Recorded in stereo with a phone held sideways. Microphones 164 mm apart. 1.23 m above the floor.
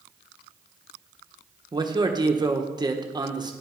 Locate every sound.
1.7 s a man speaking: 25° right (ahead or behind), 1.0 m